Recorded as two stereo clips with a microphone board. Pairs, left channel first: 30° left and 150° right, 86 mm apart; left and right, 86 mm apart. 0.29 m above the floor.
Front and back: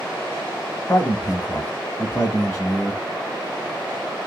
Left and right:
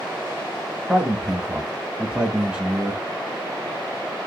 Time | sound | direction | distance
0.9 | a man speaking | 20° right | 1.4 m